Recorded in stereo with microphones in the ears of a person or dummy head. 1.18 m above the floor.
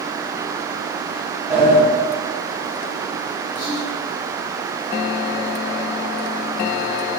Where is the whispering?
5° right (ahead or behind), 1.3 m.